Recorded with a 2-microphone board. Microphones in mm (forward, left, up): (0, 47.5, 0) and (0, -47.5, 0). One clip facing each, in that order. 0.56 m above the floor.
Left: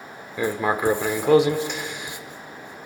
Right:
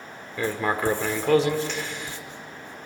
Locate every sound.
0.4 s writing: 15° left (ahead or behind), 1.4 m